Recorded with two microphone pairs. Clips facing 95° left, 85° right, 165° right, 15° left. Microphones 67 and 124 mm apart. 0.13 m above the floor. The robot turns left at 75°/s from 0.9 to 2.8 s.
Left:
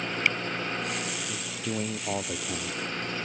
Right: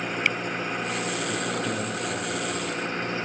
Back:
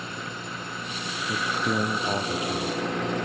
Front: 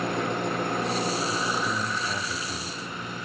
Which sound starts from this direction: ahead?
An engine running, at 0.0 s.